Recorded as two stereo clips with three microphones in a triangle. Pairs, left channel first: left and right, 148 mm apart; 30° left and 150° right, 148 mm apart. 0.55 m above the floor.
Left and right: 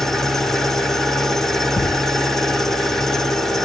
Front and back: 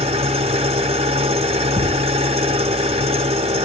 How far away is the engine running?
About 0.9 m.